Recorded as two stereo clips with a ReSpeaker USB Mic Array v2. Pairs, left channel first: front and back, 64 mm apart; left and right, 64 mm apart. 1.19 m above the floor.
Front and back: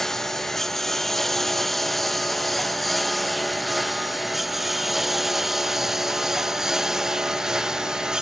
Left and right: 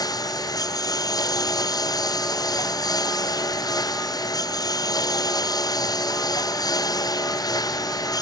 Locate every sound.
0.0 s a lawn mower: 80° left; by 8.2 s 100° left